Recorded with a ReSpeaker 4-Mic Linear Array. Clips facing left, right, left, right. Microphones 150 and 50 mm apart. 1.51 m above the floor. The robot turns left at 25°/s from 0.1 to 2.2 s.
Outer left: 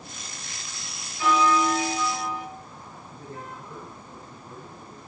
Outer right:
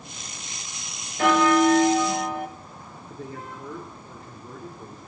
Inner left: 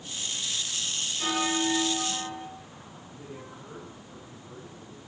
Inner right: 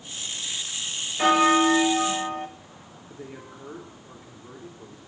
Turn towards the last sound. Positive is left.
turn(degrees=-75)  # may be behind; listen again after turning